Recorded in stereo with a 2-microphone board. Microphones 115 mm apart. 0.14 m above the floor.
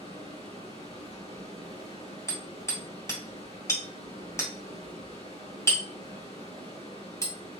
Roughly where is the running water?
Left.